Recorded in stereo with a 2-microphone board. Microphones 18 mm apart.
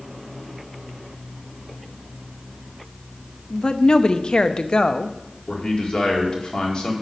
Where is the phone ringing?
No phone ringing in this recording.